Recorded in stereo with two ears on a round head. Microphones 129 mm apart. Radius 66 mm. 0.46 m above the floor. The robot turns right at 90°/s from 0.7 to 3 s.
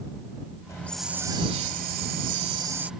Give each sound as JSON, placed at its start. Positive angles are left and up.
{"t": 0.7, "sound": "a hiss", "azimuth_deg": 155}